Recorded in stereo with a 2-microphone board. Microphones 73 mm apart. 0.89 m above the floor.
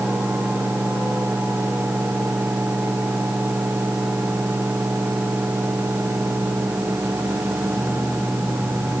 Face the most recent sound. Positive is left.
No sound to turn to.